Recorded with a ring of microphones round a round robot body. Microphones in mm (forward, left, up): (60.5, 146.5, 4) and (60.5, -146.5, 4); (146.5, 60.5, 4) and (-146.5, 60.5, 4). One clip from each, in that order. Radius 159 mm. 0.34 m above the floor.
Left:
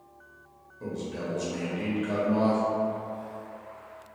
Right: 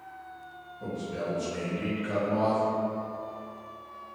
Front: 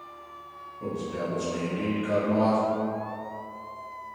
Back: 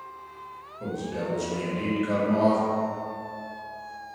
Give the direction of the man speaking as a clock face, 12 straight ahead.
8 o'clock.